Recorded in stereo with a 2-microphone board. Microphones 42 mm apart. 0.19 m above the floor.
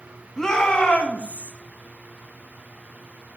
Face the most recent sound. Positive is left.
turn(degrees=40)  # may be behind; listen again after turning